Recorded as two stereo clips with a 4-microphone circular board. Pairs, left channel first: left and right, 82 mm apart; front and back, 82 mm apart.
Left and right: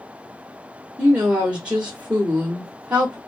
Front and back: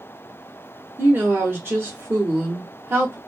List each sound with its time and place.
1.0 s a woman speaking: 155° right, 0.9 m